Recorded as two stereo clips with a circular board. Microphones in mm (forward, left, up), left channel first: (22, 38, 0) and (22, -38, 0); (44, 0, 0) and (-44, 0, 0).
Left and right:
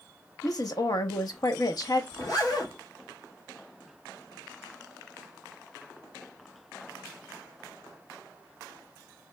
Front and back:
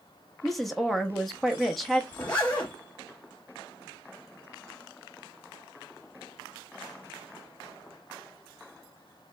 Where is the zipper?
70° left, 1.4 m.